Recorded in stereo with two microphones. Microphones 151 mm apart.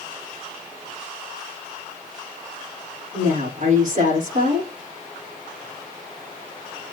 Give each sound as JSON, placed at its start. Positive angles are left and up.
{"t": 3.1, "sound": "a woman speaking", "side_deg": -60, "distance_m": 4.5}